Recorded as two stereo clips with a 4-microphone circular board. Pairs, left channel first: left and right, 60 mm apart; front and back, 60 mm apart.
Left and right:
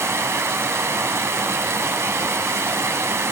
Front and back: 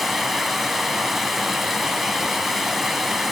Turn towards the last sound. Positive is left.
turn(degrees=-90)